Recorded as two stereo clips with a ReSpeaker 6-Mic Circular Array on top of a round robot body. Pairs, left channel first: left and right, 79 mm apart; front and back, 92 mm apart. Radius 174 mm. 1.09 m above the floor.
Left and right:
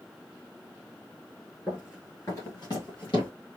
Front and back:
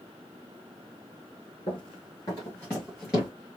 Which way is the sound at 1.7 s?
25° left.